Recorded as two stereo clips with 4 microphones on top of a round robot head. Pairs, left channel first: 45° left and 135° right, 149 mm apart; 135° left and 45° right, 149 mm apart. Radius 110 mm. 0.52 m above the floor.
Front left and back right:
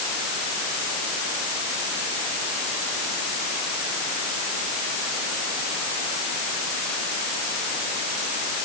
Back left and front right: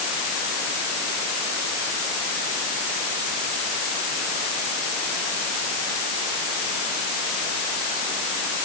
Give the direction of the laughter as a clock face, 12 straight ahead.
I don't hear laughter.